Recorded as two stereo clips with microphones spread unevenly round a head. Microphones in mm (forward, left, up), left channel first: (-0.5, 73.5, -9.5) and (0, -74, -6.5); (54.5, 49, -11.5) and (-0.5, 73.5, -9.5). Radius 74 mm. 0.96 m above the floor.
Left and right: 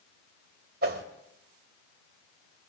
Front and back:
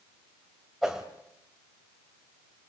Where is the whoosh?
115° right, 2.5 m.